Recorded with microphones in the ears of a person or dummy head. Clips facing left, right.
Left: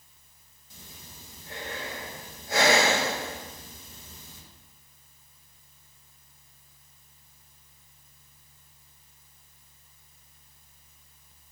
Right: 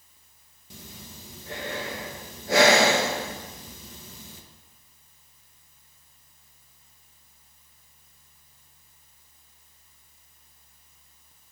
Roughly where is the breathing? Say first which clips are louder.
Right 6 dB; right.